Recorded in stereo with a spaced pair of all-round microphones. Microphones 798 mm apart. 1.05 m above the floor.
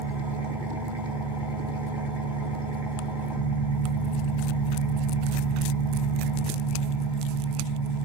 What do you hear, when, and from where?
0.0 s an engine running: 30° left (ahead or behind), 2.5 m